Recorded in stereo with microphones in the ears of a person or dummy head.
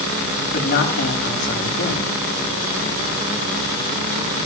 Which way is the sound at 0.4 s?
60° left (ahead or behind).